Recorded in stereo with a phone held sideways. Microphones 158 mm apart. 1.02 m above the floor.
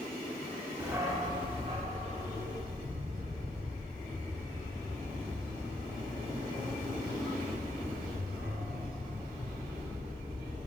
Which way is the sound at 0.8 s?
15° right (ahead or behind).